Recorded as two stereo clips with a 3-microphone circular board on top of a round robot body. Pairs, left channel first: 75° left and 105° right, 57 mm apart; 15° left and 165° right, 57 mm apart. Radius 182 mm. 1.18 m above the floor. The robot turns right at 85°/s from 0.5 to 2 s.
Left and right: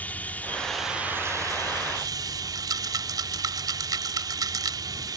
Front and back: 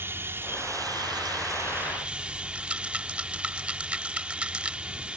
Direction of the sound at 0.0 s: 140° left.